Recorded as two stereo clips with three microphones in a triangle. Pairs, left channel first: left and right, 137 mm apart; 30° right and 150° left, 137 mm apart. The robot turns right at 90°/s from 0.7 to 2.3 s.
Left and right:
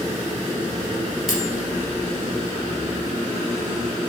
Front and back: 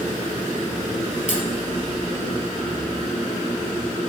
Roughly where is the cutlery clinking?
Ahead.